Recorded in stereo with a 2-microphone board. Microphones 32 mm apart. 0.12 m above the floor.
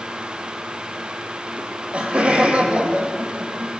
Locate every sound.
1.6 s laughter: 45° right (ahead or behind), 4 m; by 3.7 s 35° right (ahead or behind), 5.5 m